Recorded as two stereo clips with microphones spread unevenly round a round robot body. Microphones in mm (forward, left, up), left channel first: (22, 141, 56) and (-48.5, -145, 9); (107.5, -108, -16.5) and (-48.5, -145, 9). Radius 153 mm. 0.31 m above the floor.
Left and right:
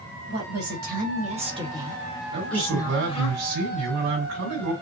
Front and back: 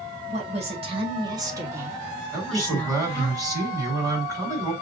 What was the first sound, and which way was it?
A woman speaking, 125° right.